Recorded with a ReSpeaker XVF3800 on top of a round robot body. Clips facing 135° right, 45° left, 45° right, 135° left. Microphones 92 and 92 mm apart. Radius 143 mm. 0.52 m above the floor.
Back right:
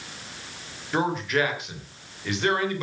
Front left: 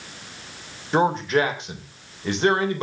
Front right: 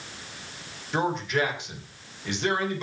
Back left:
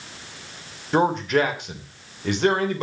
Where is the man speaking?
100° left, 3 m.